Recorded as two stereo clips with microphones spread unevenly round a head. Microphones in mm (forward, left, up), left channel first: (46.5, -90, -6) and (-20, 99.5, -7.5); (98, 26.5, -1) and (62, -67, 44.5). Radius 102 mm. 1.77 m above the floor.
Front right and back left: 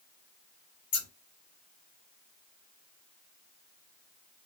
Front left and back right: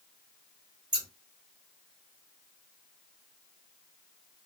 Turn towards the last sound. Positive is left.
turn(degrees=-75)